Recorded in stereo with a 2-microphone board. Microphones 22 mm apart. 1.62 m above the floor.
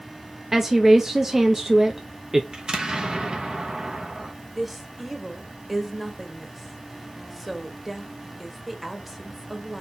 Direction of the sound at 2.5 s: 45° right (ahead or behind).